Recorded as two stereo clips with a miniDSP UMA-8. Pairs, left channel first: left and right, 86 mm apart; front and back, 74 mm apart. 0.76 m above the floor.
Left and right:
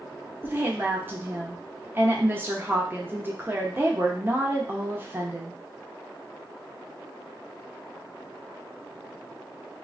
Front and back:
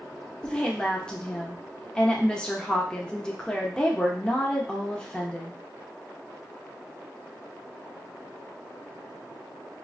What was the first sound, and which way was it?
A woman speaking, 65° right.